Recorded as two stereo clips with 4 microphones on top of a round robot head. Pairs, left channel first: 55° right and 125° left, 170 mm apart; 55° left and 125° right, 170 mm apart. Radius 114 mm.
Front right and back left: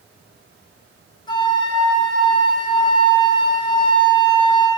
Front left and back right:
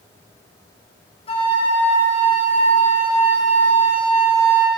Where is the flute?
5° left, 2.5 m.